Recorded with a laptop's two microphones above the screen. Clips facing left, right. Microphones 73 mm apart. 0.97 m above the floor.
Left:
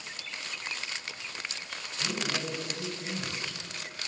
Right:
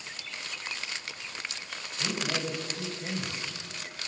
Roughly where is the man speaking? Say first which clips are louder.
Right 1 dB; right.